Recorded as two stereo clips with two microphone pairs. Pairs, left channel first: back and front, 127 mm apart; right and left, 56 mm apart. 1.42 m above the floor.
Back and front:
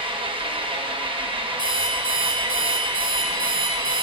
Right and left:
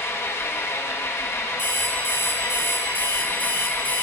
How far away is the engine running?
About 0.9 m.